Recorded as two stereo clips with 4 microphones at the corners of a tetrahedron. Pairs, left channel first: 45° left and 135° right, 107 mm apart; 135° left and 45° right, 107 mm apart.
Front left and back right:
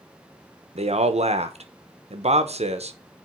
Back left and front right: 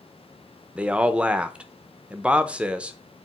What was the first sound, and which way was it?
A man speaking, 125° right.